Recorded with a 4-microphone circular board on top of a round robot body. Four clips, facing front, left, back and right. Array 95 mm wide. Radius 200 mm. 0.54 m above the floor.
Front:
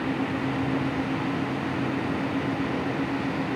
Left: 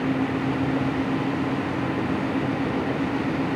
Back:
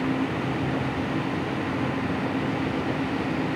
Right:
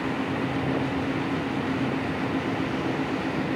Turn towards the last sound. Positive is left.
No sound to turn to.